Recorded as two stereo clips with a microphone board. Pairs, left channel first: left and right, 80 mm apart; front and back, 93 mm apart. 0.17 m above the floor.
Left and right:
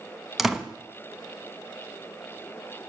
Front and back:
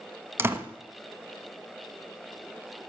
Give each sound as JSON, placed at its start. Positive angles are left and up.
{"t": 0.4, "sound": "a door slam", "azimuth_deg": -175, "distance_m": 0.7}